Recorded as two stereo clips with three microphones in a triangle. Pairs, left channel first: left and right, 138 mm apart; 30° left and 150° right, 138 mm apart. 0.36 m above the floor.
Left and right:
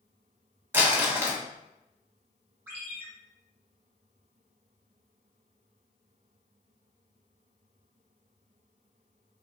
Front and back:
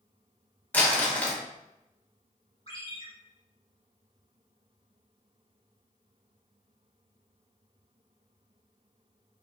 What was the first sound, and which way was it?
Crumpling, 35° right.